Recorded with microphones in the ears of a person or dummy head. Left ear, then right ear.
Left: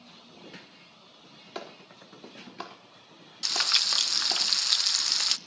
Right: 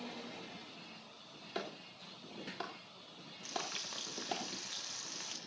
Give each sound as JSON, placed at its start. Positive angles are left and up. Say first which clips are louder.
{"t": 1.6, "sound": "a clap", "louder": "left 2 dB", "side_deg": 20, "distance_m": 3.5}
{"t": 3.4, "sound": "frying", "louder": "left 17 dB", "side_deg": 60, "distance_m": 0.6}